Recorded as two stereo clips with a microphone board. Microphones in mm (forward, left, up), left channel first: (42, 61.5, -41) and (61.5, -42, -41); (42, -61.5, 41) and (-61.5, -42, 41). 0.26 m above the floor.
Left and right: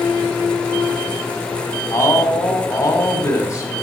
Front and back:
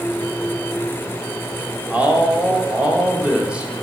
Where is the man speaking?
100° left, 1.3 m.